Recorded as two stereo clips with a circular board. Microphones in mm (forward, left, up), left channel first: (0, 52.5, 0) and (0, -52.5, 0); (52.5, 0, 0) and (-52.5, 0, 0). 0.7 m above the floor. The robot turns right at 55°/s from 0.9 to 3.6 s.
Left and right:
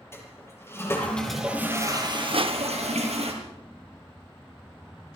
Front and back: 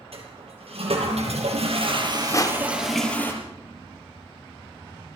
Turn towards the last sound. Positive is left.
turn(degrees=10)